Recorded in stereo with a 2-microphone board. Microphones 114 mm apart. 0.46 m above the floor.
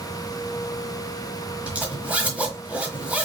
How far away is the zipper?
About 1.2 m.